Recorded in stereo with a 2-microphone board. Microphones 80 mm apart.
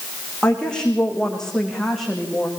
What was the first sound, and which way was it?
A woman speaking, 10° left (ahead or behind).